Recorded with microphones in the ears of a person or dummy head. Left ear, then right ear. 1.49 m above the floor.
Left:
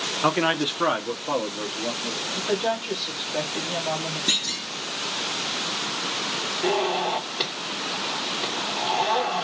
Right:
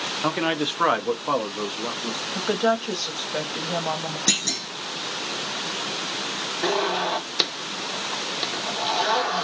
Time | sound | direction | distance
0.2 | a man speaking | 15° left (ahead or behind) | 0.6 m
2.4 | a woman speaking | 40° right (ahead or behind) | 1.2 m
4.3 | a clunk | 45° right (ahead or behind) | 1.0 m
6.6 | a zipper | 65° right (ahead or behind) | 1.2 m